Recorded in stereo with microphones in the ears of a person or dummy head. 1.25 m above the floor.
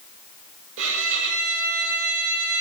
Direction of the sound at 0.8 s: 75° right (ahead or behind).